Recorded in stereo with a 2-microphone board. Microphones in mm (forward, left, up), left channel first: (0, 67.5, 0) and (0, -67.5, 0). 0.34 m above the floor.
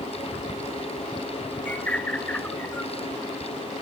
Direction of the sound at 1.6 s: 10° left (ahead or behind).